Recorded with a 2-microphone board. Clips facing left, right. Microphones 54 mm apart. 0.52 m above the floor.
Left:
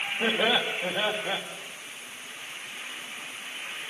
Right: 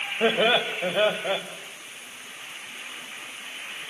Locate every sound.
0.2 s laughter: 50° right (ahead or behind), 2.5 m